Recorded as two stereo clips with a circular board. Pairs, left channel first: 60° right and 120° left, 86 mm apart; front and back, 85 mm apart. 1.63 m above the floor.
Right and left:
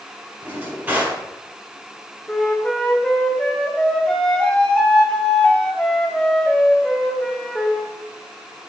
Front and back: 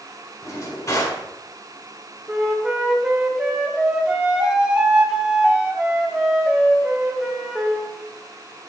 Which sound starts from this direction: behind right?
A flute, at 2.3 s.